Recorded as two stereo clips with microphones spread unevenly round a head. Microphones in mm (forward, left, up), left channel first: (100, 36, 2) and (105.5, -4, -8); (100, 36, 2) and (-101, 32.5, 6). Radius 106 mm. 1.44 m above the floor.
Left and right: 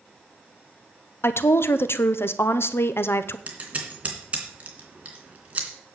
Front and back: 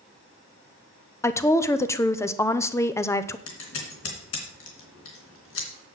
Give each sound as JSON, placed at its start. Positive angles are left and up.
{"t": 1.2, "sound": "a woman speaking", "azimuth_deg": 75, "distance_m": 0.8}
{"t": 3.5, "sound": "scissors", "azimuth_deg": -25, "distance_m": 3.0}